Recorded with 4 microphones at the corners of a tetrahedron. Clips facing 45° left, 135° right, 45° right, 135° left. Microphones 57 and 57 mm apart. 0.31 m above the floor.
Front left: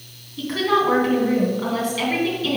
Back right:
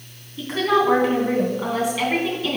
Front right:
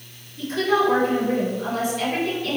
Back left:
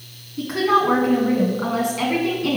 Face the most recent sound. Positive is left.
turn(degrees=150)